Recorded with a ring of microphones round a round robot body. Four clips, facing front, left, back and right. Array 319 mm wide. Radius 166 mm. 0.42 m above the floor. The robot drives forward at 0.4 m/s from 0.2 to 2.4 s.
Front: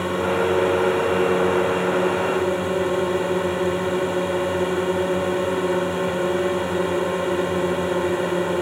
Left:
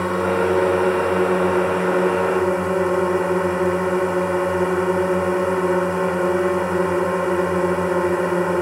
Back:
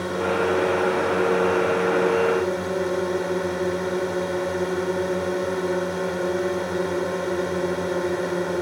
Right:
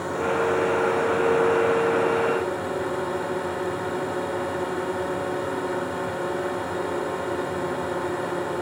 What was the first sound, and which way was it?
A drone, 75° left.